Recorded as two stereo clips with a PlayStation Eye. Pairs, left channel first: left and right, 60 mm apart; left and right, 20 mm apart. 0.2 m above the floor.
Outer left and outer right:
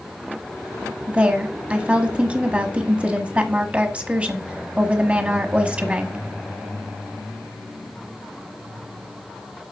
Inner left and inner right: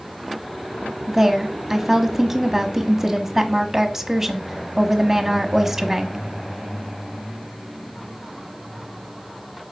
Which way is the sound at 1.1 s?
25° right (ahead or behind).